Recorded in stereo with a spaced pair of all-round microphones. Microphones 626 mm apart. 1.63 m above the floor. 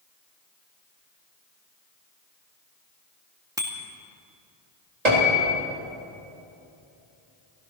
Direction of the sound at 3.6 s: 5° right (ahead or behind).